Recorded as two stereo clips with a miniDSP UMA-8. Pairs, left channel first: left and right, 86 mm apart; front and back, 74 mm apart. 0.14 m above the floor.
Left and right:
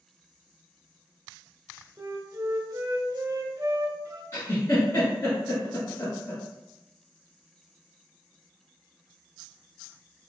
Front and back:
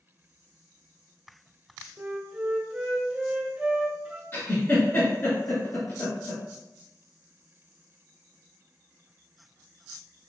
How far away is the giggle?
About 1.2 m.